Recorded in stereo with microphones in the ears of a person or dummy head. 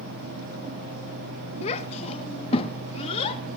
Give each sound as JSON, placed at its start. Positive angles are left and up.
{"t": 1.6, "sound": "a child speaking", "side_deg": 40, "distance_m": 1.3}